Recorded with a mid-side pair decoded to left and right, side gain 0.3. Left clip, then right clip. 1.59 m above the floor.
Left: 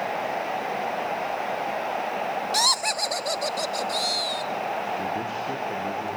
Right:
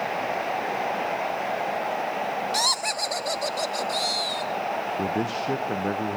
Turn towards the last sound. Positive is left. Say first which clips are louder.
# right 2 dB
turn(degrees=-70)